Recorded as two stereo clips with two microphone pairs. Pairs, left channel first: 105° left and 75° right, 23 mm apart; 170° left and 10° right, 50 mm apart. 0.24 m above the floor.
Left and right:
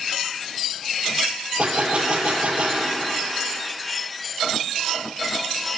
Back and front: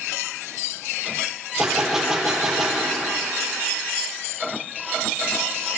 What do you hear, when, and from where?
1.6 s a gunshot: 95° right, 1.2 m